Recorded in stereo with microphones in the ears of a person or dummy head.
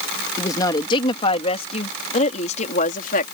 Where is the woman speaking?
25° left (ahead or behind); by 3.3 s 55° left (ahead or behind).